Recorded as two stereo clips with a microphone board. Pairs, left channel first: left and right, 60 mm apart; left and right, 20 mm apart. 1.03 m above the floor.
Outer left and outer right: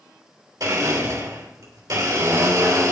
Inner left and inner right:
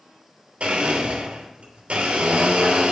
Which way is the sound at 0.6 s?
75° right (ahead or behind).